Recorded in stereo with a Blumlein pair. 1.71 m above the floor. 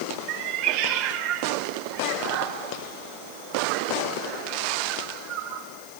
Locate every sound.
0.3 s a cat meowing: 40° right, 4 m